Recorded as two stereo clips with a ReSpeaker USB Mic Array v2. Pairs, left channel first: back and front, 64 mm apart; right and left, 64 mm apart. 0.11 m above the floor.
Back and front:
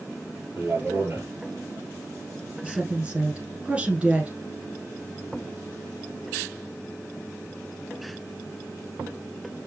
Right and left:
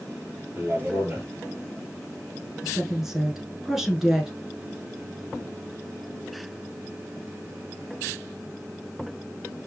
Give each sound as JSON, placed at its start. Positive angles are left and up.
{"t": 0.5, "sound": "a man speaking", "azimuth_deg": 40, "distance_m": 3.0}
{"t": 2.6, "sound": "a woman speaking", "azimuth_deg": 20, "distance_m": 1.2}